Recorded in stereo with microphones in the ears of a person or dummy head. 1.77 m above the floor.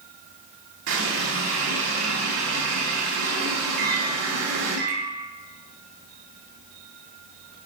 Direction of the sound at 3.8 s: 65° right (ahead or behind).